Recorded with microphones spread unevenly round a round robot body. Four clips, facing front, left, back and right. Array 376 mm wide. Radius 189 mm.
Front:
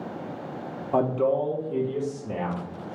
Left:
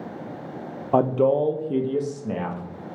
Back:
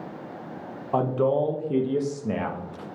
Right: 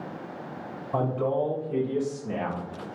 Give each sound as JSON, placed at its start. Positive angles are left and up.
{"t": 0.9, "sound": "a man speaking", "azimuth_deg": 80, "distance_m": 0.5}